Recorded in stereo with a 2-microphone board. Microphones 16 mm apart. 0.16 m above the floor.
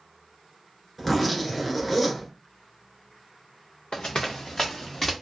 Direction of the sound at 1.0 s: 5° left (ahead or behind).